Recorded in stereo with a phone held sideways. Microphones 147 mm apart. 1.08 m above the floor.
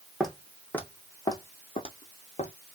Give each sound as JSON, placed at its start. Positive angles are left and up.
{"t": 0.2, "sound": "footsteps", "side_deg": 0, "distance_m": 2.5}